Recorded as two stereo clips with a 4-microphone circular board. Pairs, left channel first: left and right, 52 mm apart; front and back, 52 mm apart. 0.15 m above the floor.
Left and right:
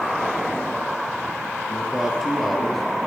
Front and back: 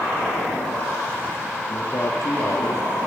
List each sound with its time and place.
1.7 s a man speaking: 10° right, 4 m; by 2.8 s 5° left, 3 m